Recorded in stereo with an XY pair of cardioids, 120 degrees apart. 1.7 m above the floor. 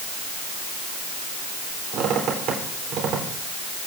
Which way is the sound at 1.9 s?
60° right.